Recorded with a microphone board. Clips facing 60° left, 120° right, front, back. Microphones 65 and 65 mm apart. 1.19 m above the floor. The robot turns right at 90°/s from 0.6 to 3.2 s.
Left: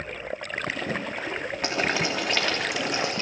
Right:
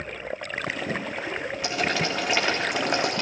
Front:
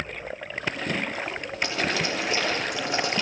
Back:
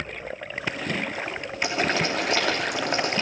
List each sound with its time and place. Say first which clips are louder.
1.6 s boiling: even, back 3 dB; 95° left, 3 m; by 3.2 s 125° right, 3 m